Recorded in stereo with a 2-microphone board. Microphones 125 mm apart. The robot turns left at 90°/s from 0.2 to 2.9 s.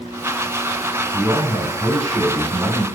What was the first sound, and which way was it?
A man speaking, 15° right (ahead or behind).